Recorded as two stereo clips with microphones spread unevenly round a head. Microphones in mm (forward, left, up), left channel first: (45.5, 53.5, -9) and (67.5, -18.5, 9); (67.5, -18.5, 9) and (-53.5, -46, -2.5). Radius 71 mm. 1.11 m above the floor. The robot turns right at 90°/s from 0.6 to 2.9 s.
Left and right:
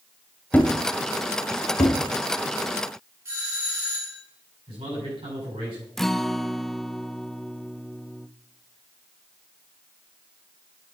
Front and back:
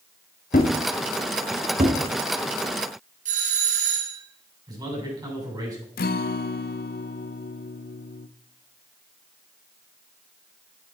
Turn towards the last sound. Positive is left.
turn(degrees=25)